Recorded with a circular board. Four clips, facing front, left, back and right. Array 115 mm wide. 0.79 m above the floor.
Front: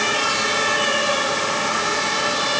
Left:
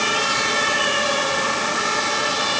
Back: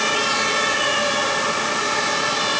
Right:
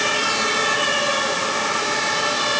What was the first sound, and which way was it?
Only background noise.